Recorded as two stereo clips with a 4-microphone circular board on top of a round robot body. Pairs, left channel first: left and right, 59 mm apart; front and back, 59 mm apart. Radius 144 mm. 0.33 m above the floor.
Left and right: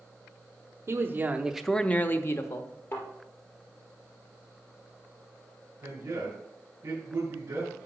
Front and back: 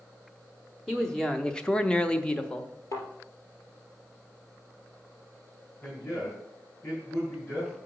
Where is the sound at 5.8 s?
55° right, 5 m.